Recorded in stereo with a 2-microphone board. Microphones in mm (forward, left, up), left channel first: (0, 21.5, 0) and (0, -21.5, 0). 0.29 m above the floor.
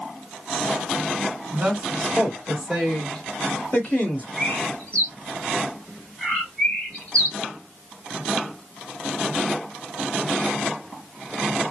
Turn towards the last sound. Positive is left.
turn(degrees=25)  # may be behind; listen again after turning